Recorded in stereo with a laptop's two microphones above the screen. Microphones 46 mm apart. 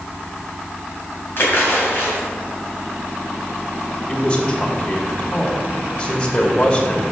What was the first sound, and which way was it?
A splash, 55° left (ahead or behind).